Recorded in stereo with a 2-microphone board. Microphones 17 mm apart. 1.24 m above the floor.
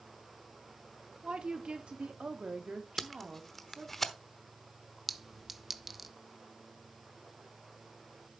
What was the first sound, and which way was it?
A woman speaking, 80° right.